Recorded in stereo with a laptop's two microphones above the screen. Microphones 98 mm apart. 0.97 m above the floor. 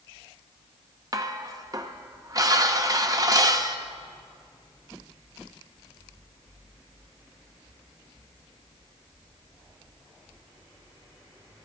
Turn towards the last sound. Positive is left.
turn(degrees=-35)  # may be behind; listen again after turning